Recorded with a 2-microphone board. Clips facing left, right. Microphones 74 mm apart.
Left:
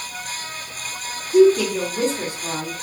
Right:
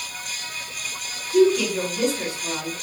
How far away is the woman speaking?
About 0.9 m.